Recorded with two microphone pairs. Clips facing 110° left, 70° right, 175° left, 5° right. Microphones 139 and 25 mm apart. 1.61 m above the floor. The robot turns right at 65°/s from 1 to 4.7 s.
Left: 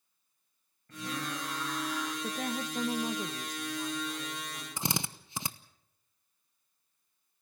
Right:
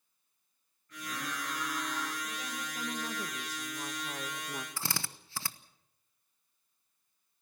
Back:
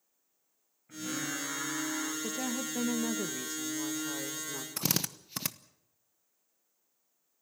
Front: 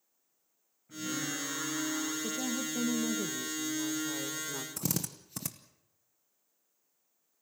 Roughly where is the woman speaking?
Behind left.